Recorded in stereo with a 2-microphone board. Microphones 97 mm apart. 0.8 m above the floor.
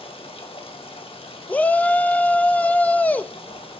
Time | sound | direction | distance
0.0 | running water | 70° left (ahead or behind) | 1.8 m
1.5 | a shout | 15° left (ahead or behind) | 0.6 m